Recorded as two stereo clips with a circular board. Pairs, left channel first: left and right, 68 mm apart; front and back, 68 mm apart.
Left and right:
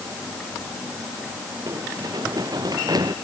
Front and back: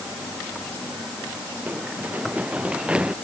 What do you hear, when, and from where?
1.7 s running footsteps: 115° right; by 3.1 s 105° right